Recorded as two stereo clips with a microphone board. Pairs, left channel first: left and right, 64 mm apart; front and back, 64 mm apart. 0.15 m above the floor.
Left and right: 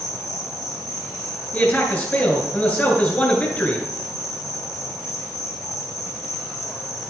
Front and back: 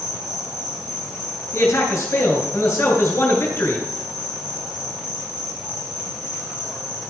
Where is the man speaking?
30° left, 2.5 m.